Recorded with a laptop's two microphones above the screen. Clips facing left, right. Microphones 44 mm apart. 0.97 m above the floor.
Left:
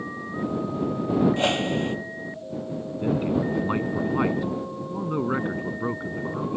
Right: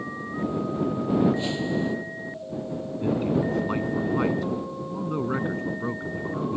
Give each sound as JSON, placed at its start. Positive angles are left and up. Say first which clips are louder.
{"t": 1.4, "sound": "a whoosh", "louder": "left 3 dB", "side_deg": 60}
{"t": 3.0, "sound": "a man speaking", "louder": "even", "side_deg": 15}